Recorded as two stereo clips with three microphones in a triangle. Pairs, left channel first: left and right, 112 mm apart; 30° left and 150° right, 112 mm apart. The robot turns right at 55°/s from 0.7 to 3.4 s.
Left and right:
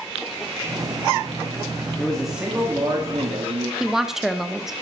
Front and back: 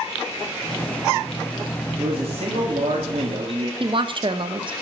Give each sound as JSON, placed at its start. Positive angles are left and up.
{"t": 2.0, "sound": "a man speaking", "azimuth_deg": 165, "distance_m": 2.5}
{"t": 3.8, "sound": "a woman speaking", "azimuth_deg": -175, "distance_m": 1.2}